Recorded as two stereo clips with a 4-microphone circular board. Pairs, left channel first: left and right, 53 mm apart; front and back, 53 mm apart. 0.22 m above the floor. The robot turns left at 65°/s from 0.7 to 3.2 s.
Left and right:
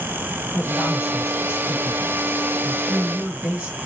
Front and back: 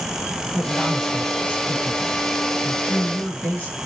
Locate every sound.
0.5 s a woman speaking: 115° left, 1.9 m; by 3.8 s 50° right, 1.9 m